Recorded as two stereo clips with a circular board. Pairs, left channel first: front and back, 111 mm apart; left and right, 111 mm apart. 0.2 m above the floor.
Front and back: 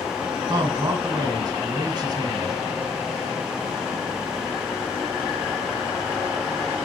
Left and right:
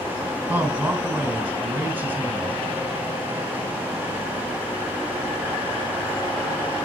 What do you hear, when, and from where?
0.5 s a man speaking: 150° right, 1.9 m